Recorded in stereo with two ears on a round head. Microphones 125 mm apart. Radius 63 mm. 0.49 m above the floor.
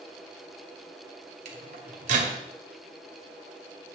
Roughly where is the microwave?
Right.